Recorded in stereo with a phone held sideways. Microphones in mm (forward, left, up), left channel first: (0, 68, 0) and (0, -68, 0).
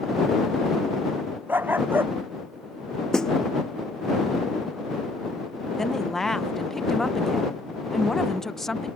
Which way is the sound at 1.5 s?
15° right (ahead or behind).